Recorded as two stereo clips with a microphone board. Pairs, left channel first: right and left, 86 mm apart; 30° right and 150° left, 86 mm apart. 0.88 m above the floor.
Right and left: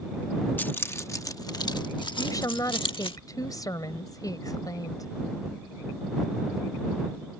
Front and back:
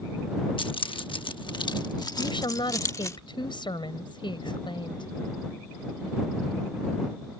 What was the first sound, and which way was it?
Keys jangling, 20° right.